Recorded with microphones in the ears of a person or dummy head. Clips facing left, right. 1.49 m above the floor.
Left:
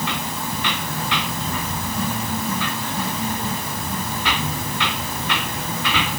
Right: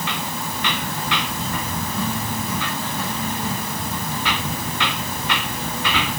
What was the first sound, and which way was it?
Only background noise.